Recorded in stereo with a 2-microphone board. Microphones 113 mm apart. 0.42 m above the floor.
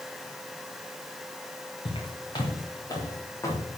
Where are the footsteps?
45° left (ahead or behind), 4.5 m; by 3.6 s 25° left (ahead or behind), 6.5 m.